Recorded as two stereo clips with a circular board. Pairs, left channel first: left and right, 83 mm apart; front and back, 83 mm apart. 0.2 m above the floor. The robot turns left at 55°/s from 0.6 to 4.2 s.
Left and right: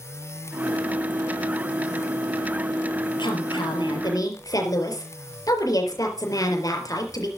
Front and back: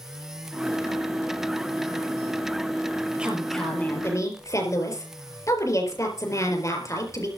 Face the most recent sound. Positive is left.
turn(degrees=50)